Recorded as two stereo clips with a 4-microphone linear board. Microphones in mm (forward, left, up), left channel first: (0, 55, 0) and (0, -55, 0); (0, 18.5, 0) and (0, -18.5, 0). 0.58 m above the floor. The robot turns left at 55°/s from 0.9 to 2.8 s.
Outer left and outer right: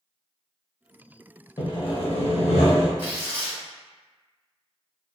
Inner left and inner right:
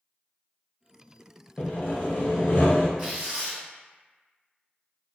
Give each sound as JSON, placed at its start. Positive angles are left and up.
{"t": 1.6, "sound": "sawing", "azimuth_deg": 140, "distance_m": 0.6}
{"t": 3.0, "sound": "tearing paper", "side_deg": -25, "distance_m": 0.9}